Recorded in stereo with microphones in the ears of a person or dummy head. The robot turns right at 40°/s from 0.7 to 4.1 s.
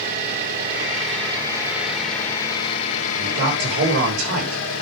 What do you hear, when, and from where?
0.0 s an engine running: 50° right, 2.5 m; by 4.8 s 85° left, 2.5 m
3.2 s a man speaking: 135° right, 5.5 m; by 4.7 s 100° right, 5.5 m